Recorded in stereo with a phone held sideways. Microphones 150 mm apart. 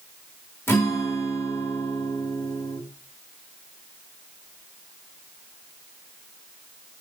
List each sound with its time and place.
0.7 s a guitar: 15° left (ahead or behind), 1.8 m